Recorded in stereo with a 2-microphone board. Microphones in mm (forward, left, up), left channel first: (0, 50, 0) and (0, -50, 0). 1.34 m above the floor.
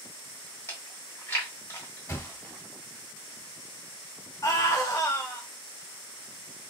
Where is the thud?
25° left (ahead or behind), 1.8 m.